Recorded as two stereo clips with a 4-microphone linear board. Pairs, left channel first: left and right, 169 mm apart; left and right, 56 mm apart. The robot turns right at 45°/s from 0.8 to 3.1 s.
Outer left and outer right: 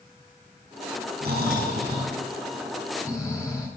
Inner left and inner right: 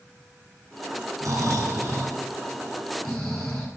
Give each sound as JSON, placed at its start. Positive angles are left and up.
{"t": 1.2, "sound": "snoring", "azimuth_deg": -70, "distance_m": 9.0}